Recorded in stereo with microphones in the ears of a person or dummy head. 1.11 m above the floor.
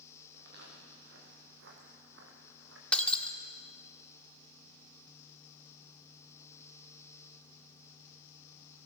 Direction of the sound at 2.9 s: 5° left (ahead or behind).